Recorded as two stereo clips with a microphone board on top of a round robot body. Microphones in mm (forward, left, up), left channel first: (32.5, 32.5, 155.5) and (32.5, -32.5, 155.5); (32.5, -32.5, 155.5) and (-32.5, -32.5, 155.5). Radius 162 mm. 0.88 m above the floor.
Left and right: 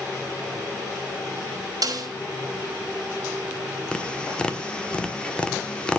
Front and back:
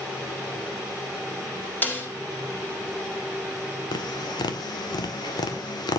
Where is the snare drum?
60° right, 4.5 m.